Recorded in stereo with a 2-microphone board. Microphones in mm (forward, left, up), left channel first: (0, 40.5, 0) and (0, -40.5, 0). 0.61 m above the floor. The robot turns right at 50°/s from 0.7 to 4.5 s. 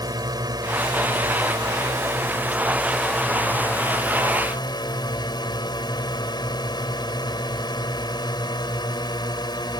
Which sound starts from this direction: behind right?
A drone, at 0.0 s.